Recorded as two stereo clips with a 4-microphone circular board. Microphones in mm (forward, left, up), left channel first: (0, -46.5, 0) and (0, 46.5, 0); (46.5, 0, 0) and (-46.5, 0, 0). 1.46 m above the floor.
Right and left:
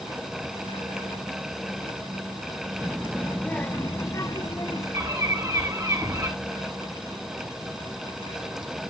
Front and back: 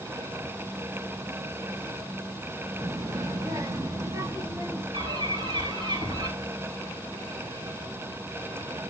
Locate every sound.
2.8 s a child speaking: 160° left, 0.7 m; by 4.8 s 125° right, 1.3 m
4.9 s a bird: 145° left, 5 m